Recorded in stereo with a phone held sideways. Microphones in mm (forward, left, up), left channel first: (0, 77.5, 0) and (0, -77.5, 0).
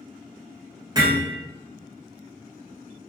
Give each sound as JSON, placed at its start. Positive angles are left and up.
{"t": 0.9, "sound": "hammering", "side_deg": -25, "distance_m": 1.4}